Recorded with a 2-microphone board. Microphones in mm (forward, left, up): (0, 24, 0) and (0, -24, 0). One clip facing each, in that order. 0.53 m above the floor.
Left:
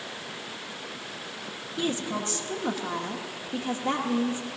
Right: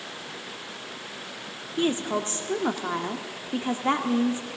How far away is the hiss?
No hiss in this recording.